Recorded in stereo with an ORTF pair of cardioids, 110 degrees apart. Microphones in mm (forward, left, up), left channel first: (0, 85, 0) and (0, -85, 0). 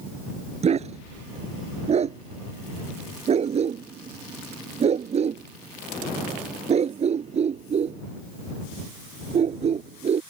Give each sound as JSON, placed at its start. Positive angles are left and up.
{"t": 0.6, "sound": "a dog barking", "azimuth_deg": -40}